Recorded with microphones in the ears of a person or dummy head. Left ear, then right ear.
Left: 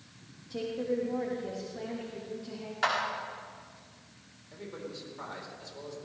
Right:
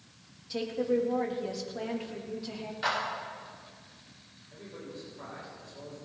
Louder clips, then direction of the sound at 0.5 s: Right 3 dB; 40° right (ahead or behind).